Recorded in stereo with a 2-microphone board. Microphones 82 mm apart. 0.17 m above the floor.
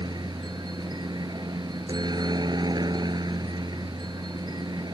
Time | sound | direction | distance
0.0 | a helicopter | 60° right (ahead or behind) | ?